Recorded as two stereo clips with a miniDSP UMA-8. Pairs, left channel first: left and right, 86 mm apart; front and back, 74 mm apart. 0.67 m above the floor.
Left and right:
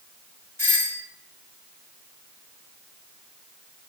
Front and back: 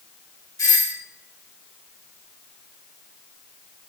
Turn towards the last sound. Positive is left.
turn(degrees=40)